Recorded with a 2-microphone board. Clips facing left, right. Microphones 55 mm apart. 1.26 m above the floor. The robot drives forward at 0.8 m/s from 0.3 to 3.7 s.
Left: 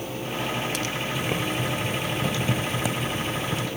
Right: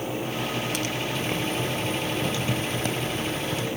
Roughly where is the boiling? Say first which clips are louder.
Left 1 dB; centre.